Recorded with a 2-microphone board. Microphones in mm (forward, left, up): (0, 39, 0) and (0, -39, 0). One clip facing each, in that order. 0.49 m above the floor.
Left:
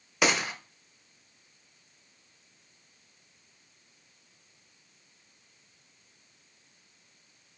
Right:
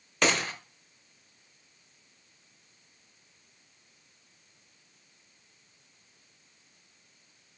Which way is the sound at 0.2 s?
10° left (ahead or behind).